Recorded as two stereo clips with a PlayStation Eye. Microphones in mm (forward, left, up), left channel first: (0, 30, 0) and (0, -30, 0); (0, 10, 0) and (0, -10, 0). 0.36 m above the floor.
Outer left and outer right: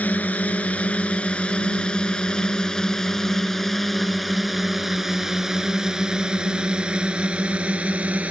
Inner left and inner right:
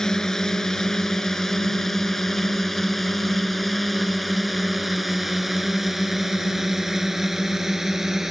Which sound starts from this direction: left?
A drone, at 0.0 s.